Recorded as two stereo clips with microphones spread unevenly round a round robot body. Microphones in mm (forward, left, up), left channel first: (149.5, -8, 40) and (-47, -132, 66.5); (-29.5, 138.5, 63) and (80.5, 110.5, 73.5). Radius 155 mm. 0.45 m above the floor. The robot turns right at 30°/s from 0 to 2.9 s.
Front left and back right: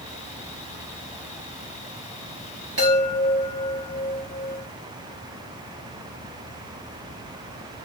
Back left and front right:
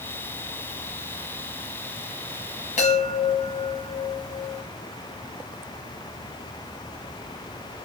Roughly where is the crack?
No crack in this recording.